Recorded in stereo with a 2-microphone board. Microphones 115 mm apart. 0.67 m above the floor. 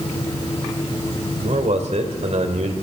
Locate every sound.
1.4 s a man speaking: 70° right (ahead or behind), 3 m